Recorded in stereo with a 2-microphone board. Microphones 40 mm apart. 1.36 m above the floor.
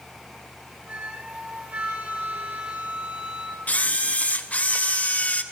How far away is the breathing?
No breathing in this recording.